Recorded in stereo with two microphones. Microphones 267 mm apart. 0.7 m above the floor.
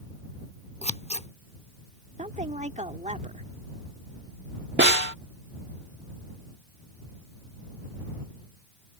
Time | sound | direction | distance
0.8 | scissors | 25° left (ahead or behind) | ?
2.2 | a woman speaking | 25° right (ahead or behind) | ?
4.8 | a snare drum | 40° right (ahead or behind) | ?